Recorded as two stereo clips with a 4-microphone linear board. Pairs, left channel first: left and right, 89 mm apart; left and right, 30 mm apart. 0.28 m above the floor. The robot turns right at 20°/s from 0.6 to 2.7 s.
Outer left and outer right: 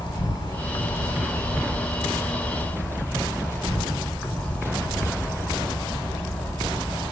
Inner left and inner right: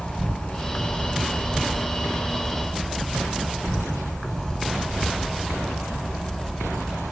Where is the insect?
125° left, 0.9 m; by 7.1 s 165° left, 0.9 m.